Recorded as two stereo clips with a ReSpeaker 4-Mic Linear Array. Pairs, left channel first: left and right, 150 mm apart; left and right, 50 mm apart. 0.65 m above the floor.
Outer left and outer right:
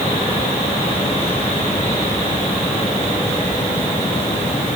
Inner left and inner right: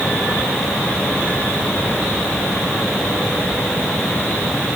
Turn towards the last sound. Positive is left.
No sound to turn to.